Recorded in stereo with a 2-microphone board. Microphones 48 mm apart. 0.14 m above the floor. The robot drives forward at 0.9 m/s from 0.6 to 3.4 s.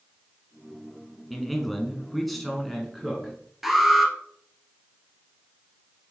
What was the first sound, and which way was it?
A man speaking, centre (ahead or behind).